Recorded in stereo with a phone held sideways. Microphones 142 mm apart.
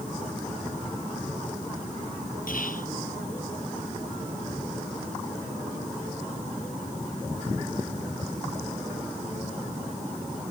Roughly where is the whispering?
Left.